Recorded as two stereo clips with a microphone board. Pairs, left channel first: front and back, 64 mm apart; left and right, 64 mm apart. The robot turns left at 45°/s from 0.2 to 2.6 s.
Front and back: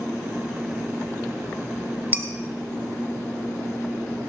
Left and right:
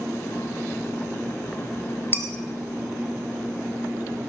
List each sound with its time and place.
2.1 s dishes clattering: 130° left, 1.3 m; by 2.2 s 125° left, 1.3 m